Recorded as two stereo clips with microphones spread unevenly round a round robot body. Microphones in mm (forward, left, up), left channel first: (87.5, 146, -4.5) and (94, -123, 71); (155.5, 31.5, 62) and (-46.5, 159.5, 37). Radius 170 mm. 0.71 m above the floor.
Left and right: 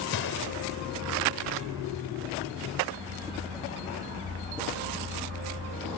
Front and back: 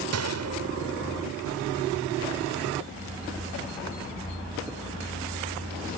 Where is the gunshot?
140° left.